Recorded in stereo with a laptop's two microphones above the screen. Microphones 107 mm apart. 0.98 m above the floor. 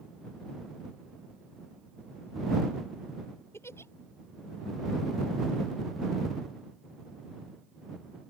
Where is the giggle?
25° left (ahead or behind).